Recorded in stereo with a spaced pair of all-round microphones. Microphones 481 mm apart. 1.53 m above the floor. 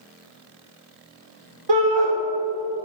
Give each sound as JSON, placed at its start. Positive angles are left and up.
{"t": 1.7, "sound": "a shout", "side_deg": -55, "distance_m": 1.5}